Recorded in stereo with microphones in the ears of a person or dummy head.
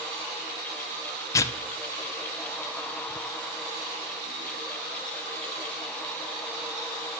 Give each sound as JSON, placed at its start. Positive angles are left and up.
{"t": 1.3, "sound": "tearing paper", "side_deg": 20, "distance_m": 0.6}